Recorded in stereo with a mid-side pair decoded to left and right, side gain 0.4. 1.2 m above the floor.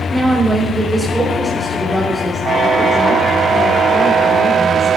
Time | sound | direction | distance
0.1 | a woman speaking | 15° right | 3.5 m